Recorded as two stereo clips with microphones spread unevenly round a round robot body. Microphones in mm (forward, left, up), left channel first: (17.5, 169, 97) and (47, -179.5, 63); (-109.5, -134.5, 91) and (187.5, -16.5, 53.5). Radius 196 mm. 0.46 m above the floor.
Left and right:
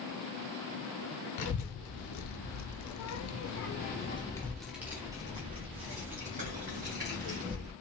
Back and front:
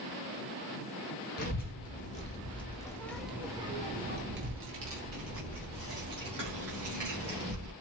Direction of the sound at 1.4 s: 135° left.